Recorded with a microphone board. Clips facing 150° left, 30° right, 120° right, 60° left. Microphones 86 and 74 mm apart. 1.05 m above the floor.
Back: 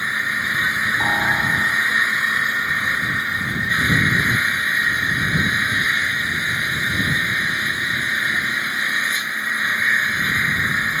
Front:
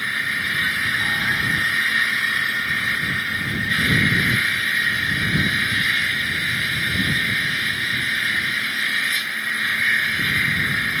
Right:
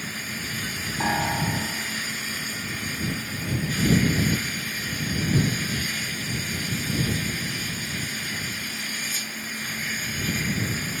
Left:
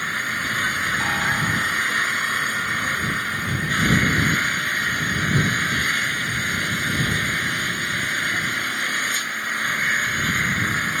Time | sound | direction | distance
0.0 | an engine running | 90° left | ?
1.0 | a piano | 175° left | ?